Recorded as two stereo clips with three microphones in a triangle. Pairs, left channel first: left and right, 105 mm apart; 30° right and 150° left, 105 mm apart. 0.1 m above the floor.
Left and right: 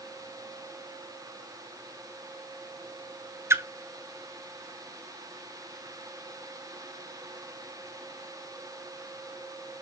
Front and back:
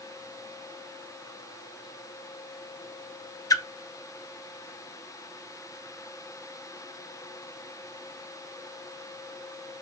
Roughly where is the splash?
Ahead right.